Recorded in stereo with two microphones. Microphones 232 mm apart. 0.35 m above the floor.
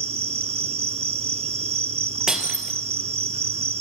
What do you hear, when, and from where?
0.0 s an insect: 25° right (ahead or behind), 1.2 m
2.3 s breaking glass: centre (ahead or behind), 2.5 m